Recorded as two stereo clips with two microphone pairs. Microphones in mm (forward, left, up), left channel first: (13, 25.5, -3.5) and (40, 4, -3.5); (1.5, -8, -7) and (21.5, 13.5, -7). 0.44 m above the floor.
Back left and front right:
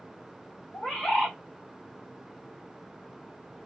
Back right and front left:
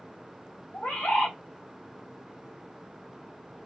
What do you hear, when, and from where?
0.7 s a bird: 130° right, 1.8 m